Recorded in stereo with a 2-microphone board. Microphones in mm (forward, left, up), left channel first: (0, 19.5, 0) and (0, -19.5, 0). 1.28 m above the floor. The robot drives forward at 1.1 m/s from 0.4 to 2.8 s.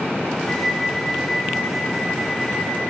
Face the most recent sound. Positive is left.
turn(degrees=10)  # may be behind; listen again after turning